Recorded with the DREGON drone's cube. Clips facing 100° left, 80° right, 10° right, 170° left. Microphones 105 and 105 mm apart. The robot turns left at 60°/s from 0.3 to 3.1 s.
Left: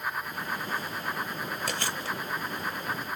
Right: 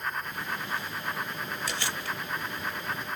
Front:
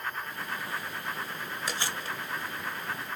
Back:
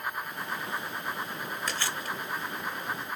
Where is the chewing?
70° left, 0.7 m; by 2.2 s 40° left, 0.7 m.